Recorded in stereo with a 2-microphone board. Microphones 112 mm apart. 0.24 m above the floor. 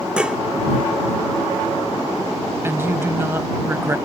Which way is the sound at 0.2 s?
10° right (ahead or behind).